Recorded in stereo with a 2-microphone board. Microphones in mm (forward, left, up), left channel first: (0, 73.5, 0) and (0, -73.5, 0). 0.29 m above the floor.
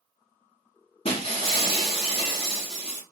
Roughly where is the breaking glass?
Left.